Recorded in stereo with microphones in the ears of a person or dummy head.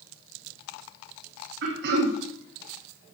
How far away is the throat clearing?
About 2 m.